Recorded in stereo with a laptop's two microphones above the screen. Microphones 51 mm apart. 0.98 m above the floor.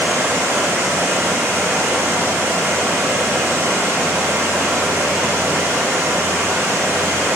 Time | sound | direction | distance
0.0 | running water | 65° right (ahead or behind) | 2.5 m